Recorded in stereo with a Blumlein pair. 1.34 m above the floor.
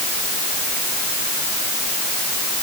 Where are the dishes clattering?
I don't hear dishes clattering.